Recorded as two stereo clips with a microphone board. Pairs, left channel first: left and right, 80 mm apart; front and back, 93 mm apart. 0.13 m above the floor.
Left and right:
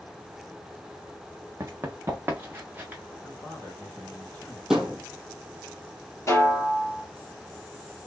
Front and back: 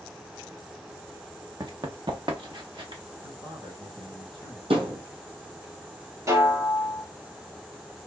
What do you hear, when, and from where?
1.6 s running footsteps: 140° right, 1.1 m; by 3.0 s 155° right, 1.7 m
3.2 s a man speaking: 160° left, 4 m
4.7 s a thud: 175° right, 1.7 m
6.3 s a snare drum: 135° left, 2.5 m